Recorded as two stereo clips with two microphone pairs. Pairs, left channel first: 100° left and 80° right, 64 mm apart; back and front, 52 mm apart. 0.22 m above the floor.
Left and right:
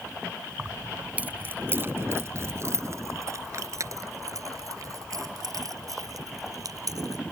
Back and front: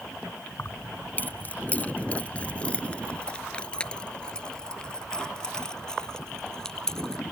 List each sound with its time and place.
0.6 s keys jangling: 155° right; by 7.2 s 100° right